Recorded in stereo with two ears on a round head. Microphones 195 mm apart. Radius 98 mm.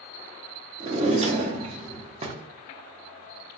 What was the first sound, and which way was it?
A drawer, 30° right (ahead or behind).